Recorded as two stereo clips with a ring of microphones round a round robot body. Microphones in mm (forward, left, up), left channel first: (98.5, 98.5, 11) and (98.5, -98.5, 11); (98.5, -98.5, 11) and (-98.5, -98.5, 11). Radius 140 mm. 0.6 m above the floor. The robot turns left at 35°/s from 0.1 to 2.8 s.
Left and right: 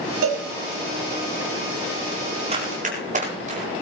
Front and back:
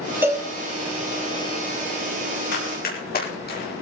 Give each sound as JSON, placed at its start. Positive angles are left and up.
{"t": 0.2, "sound": "a cowbell", "azimuth_deg": -100, "distance_m": 5.5}
{"t": 2.5, "sound": "running footsteps", "azimuth_deg": -30, "distance_m": 9.5}